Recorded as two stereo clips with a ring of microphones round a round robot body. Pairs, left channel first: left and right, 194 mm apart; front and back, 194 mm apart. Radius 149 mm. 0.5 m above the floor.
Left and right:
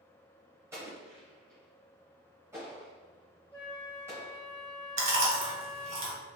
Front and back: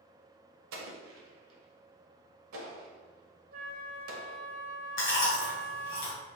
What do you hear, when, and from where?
0.7 s an explosion: 170° right, 0.7 m
3.5 s a flute: 170° left, 1.2 m
5.0 s chewing: 50° right, 1.8 m